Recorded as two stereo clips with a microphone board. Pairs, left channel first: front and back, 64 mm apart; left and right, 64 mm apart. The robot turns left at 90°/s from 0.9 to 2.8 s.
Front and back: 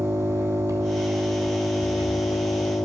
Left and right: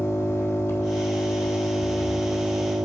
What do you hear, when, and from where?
0.0 s an engine running: 140° left, 1.9 m; by 2.8 s 30° right, 1.9 m